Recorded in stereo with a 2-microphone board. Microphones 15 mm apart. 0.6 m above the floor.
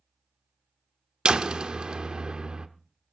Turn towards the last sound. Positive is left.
turn(degrees=-60)  # may be behind; listen again after turning